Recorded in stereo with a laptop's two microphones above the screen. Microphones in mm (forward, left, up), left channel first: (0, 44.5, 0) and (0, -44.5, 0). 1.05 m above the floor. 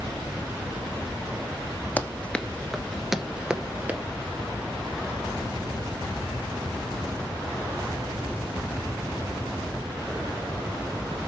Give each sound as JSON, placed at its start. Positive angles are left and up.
{"t": 2.0, "sound": "running footsteps", "side_deg": 20, "distance_m": 1.1}